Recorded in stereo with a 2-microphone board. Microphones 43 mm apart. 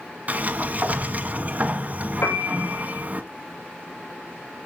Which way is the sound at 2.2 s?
65° left (ahead or behind).